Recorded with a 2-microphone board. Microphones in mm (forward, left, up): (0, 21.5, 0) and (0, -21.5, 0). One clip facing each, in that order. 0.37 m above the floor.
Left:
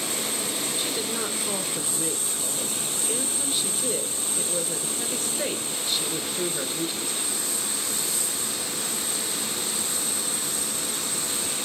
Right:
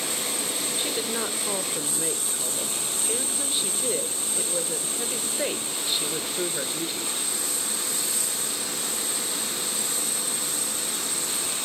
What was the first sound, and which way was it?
A woman speaking, 10° right (ahead or behind).